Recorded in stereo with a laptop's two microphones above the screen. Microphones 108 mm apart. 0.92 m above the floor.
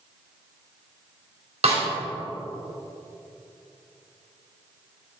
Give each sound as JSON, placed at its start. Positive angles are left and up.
{"t": 1.6, "sound": "a snare drum", "side_deg": -75, "distance_m": 2.5}